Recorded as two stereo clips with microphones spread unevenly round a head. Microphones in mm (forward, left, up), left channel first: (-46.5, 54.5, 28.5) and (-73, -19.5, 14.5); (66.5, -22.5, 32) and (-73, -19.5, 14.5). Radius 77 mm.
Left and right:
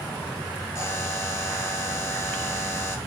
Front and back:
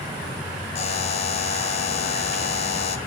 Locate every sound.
0.8 s a buzzer: 20° left, 0.6 m